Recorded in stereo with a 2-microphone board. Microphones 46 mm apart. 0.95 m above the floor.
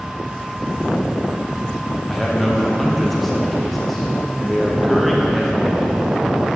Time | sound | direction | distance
2.1 | a man speaking | centre (ahead or behind) | 1.1 m